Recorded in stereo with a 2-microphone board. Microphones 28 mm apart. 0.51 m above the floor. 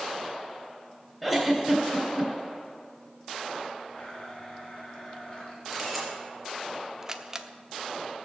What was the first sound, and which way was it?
A giggle, centre (ahead or behind).